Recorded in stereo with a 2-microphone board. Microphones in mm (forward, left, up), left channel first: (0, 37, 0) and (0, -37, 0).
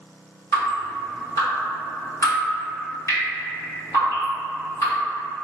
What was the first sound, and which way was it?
Dripping, 50° left (ahead or behind).